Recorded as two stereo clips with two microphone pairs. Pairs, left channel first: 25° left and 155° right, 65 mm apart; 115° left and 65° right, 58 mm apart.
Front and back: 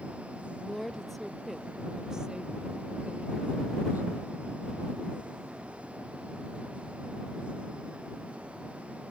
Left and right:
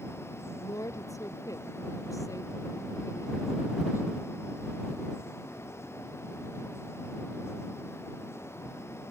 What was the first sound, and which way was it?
A woman speaking, 110° left.